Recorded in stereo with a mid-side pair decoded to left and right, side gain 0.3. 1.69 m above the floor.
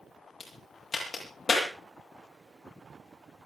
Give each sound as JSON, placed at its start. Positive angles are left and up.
{"t": 0.4, "sound": "a crack", "azimuth_deg": 55, "distance_m": 10.0}